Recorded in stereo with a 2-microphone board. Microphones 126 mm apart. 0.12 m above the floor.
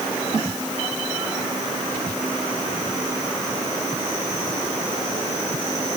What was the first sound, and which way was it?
Only background noise.